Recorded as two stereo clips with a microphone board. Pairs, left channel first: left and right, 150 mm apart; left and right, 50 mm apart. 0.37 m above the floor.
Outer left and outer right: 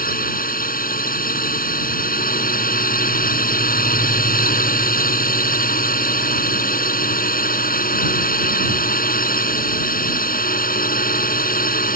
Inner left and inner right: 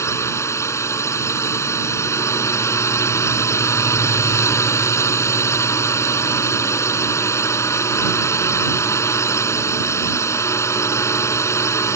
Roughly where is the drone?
Left.